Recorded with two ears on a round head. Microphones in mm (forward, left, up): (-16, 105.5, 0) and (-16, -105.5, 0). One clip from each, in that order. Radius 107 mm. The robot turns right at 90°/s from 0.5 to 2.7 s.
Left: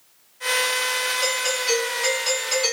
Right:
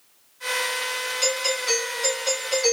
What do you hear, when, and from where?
1.2 s a doorbell: 65° right, 1.4 m; by 2.7 s 70° left, 1.4 m